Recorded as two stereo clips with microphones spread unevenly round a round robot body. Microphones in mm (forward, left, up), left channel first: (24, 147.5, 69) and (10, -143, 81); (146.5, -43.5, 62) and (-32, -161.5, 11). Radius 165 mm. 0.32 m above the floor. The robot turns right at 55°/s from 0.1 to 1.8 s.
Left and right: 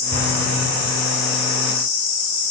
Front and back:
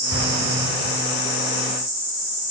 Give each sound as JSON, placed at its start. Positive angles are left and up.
{"t": 0.1, "sound": "an explosion", "azimuth_deg": -155, "distance_m": 6.5}